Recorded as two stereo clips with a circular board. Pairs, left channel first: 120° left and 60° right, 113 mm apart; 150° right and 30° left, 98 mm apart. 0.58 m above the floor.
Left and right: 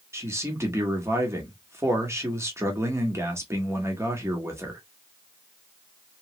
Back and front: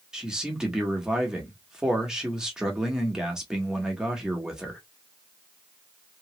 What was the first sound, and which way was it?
A man speaking, 45° right.